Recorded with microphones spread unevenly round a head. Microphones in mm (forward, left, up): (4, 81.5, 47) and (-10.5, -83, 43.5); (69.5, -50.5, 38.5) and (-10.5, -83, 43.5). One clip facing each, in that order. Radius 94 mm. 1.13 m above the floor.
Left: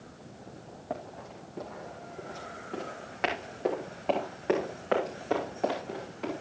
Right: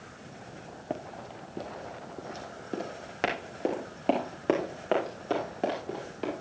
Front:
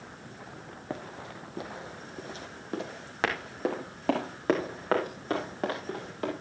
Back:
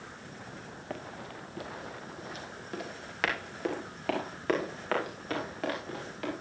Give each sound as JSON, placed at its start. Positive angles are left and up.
{"t": 0.9, "sound": "running footsteps", "azimuth_deg": -40, "distance_m": 1.3}